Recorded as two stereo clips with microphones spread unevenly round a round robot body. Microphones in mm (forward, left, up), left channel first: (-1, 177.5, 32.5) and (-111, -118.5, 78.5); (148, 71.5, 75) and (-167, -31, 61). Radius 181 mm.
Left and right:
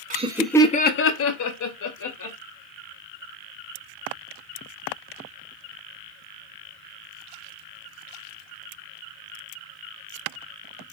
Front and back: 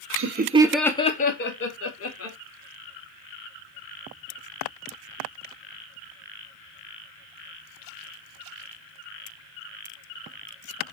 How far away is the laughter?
About 0.6 m.